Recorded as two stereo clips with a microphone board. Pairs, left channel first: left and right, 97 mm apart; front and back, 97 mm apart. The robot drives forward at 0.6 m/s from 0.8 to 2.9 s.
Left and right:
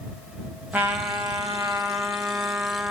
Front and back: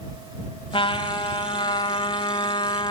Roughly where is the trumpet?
Ahead.